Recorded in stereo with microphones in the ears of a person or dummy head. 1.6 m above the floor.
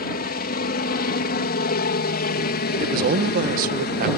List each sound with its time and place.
0.0 s a helicopter: 45° left (ahead or behind)
2.8 s a man speaking: 50° right (ahead or behind)